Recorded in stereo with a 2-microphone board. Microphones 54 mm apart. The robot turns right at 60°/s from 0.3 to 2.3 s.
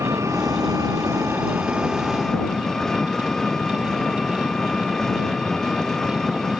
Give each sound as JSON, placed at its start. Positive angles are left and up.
{"t": 0.0, "sound": "an engine running", "azimuth_deg": -110}